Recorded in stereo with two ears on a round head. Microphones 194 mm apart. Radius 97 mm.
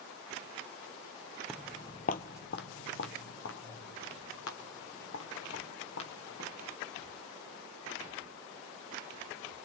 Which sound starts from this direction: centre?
Footsteps, at 1.5 s.